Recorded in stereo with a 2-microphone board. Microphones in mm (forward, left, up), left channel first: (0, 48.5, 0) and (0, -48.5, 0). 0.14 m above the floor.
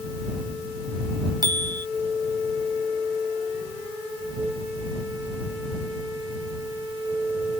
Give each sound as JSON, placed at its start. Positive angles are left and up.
{"t": 1.4, "sound": "a bicycle bell", "side_deg": -45}